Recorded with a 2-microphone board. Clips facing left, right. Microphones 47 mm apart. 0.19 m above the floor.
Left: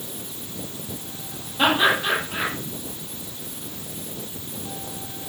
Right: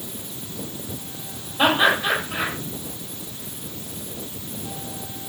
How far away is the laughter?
About 7 m.